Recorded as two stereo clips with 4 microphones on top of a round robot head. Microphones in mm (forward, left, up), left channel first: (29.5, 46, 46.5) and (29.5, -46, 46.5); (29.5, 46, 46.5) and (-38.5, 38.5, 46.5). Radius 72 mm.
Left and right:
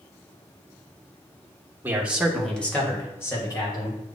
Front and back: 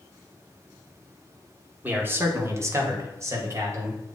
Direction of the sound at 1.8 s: 135° right.